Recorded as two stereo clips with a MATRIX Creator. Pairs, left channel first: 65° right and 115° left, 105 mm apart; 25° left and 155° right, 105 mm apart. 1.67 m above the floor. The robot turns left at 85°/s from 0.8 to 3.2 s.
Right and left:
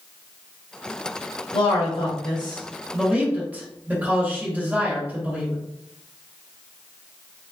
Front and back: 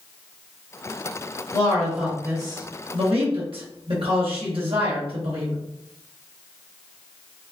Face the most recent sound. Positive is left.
turn(degrees=-175)